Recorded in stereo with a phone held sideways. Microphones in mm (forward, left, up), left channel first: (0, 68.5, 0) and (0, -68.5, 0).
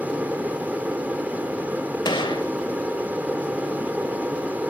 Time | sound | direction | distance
0.0 | an aircraft | 10° right (ahead or behind) | ?
2.0 | a gunshot | 35° left (ahead or behind) | ?